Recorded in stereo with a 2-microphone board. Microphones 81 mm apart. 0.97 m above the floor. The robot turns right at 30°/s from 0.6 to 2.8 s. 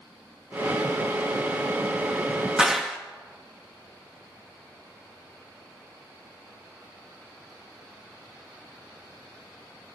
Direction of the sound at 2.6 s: 10° right (ahead or behind).